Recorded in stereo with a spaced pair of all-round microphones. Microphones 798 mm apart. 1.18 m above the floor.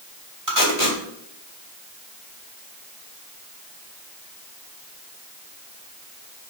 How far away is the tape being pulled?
About 3 m.